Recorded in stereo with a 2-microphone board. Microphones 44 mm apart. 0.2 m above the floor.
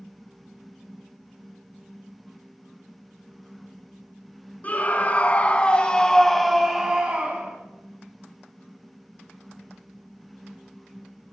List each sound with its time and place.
4.6 s a scream: 35° left (ahead or behind), 1.9 m; by 7.6 s 25° right (ahead or behind), 1.5 m